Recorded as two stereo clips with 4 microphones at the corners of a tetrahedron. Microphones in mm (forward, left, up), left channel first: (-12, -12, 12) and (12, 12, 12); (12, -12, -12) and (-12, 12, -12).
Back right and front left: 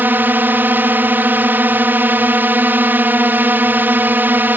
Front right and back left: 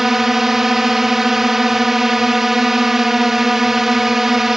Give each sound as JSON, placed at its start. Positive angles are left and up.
{"t": 0.0, "sound": "a drone", "azimuth_deg": 55}